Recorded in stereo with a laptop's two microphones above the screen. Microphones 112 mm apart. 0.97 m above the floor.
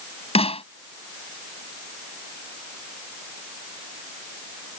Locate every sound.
0.3 s a snare drum: 70° left (ahead or behind)